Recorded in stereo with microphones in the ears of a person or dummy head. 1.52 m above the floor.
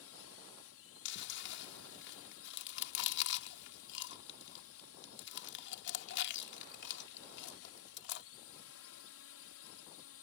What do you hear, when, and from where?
0.0 s a drone: 70° left (ahead or behind)
1.1 s chewing: 65° left (ahead or behind)